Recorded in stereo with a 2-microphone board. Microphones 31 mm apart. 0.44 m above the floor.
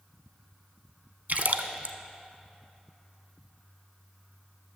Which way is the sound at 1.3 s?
60° right (ahead or behind).